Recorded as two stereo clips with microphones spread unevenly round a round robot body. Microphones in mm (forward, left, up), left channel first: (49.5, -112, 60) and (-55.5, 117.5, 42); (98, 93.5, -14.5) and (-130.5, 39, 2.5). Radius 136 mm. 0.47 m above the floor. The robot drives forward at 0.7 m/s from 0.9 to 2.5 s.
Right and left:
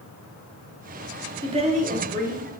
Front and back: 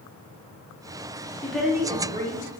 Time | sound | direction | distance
1.4 | a woman speaking | 75° left | 0.7 m